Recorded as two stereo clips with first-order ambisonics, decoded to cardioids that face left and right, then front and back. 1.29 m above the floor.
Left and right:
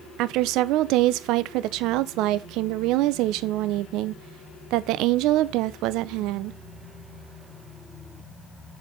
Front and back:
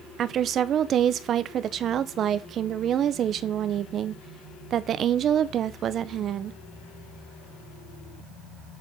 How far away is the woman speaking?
About 0.5 m.